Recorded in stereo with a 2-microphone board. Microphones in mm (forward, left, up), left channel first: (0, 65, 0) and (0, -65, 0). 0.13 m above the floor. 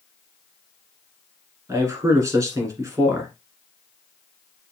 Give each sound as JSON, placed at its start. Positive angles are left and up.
{"t": 1.7, "sound": "a man speaking", "side_deg": -25, "distance_m": 1.5}